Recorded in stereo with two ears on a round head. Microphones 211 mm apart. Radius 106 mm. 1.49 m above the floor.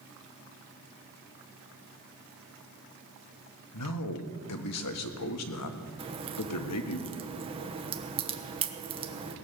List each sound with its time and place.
3.7 s a man speaking: 75° left (ahead or behind), 1.4 m
6.0 s a crack: 25° right (ahead or behind), 1.2 m